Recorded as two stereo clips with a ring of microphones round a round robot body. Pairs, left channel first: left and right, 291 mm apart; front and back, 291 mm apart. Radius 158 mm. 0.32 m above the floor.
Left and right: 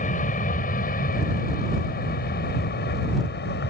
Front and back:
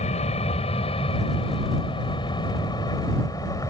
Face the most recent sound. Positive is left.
turn(degrees=70)